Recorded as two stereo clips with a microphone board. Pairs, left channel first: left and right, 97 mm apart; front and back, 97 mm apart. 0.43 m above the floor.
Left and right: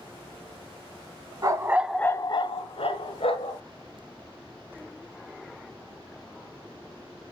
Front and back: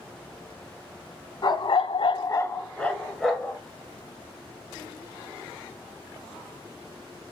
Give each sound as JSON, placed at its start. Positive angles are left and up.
{"t": 1.4, "sound": "a dog barking", "azimuth_deg": -40, "distance_m": 0.8}